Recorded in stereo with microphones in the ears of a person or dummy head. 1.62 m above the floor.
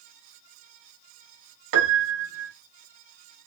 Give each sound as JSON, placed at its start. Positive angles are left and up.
{"t": 1.7, "sound": "a piano", "side_deg": -60, "distance_m": 0.6}